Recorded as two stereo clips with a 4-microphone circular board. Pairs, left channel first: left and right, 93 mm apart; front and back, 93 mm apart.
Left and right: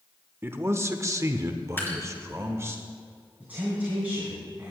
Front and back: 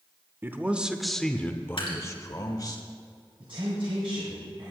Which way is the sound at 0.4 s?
135° right.